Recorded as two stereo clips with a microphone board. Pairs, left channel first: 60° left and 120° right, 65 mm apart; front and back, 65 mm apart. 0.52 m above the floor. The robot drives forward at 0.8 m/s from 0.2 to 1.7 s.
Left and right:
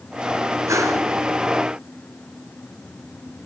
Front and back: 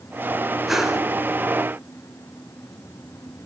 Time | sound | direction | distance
0.7 | a whoosh | 90° right | 2.5 m